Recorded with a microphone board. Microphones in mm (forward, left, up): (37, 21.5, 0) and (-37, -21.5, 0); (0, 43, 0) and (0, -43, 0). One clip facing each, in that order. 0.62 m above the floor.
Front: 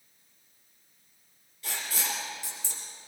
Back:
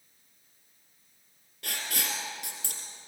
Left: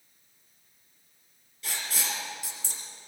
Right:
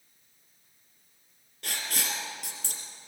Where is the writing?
130° right, 3 m.